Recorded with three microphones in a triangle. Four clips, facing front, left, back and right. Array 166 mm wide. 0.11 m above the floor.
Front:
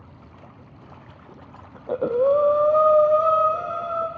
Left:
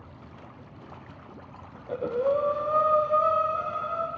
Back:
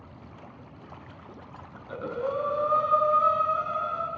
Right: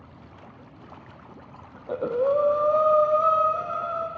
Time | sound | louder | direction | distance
1.8 | breathing | right 3 dB, front 11 dB | 15° right | 0.9 m